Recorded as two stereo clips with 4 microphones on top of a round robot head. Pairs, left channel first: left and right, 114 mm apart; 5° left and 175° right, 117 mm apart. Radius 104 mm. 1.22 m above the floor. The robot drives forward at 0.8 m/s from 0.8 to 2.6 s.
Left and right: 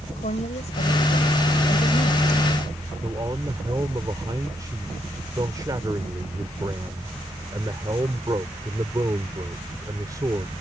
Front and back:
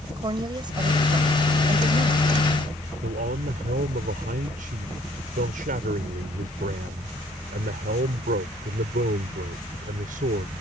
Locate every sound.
0.2 s a woman speaking: 135° left; by 2.6 s 140° left
3.0 s a man speaking: 160° right